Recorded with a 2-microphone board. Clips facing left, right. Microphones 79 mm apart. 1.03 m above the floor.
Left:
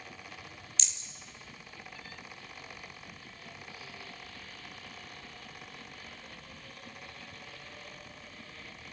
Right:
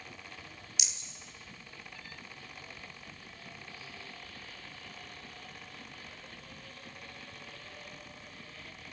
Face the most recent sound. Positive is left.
turn(degrees=-10)  # may be behind; listen again after turning